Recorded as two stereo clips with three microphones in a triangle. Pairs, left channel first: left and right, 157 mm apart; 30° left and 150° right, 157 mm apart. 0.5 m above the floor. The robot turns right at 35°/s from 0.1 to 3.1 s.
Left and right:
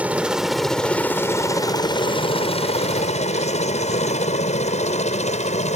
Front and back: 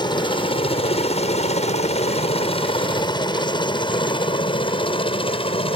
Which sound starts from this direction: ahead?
A helicopter, at 0.0 s.